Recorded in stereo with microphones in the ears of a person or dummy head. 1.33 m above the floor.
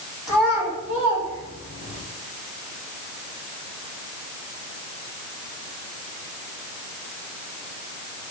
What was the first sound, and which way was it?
A child speaking, 5° right (ahead or behind).